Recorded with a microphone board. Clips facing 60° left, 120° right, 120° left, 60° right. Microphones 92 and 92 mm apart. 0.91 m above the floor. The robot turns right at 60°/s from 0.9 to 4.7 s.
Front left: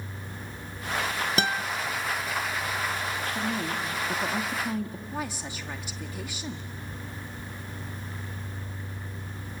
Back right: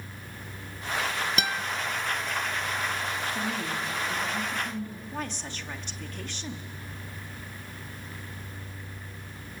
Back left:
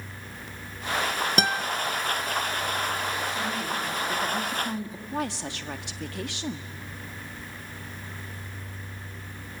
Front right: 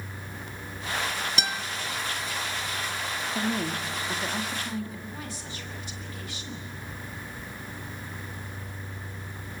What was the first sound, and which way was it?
A guitar, 105° left.